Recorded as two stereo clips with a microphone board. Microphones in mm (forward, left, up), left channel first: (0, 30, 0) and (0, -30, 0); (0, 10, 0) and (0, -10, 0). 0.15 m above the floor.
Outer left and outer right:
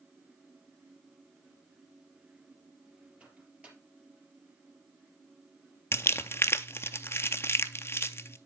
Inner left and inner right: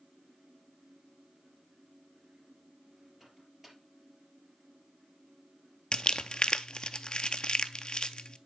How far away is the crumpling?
About 0.5 m.